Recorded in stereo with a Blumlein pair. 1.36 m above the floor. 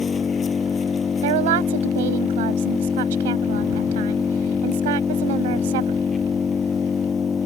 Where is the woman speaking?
55° right.